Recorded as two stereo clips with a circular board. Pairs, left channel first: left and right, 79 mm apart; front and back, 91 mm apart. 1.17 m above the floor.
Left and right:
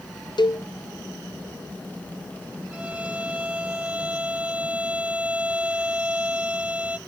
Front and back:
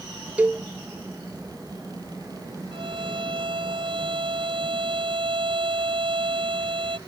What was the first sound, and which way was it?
A cowbell, 105° left.